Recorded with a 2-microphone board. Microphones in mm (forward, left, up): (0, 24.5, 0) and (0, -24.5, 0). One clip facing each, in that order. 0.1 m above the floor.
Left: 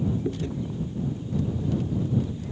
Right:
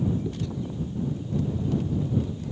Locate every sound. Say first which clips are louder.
0.2 s chewing: left 2 dB; 35° left (ahead or behind)